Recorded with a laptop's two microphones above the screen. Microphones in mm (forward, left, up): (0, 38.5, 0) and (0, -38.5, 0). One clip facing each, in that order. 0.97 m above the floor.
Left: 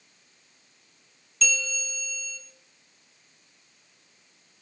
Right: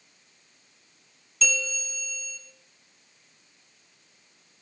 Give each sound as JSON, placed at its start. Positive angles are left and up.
{"t": 1.4, "sound": "a bell", "side_deg": 0, "distance_m": 6.5}